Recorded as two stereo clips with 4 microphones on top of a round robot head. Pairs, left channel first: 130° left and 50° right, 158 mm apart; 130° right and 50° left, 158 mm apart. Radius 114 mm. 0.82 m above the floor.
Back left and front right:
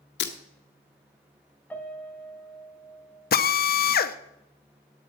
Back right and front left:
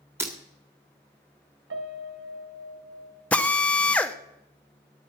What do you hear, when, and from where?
0.2 s breaking glass: 125° left, 1.7 m
1.7 s a piano: 50° left, 1.5 m
3.3 s a drill: 150° left, 0.9 m